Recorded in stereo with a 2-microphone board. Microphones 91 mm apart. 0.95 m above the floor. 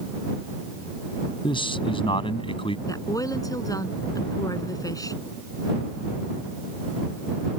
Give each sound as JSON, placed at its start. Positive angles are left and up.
{"t": 1.4, "sound": "a man speaking", "side_deg": 65}
{"t": 2.9, "sound": "a woman speaking", "side_deg": 40}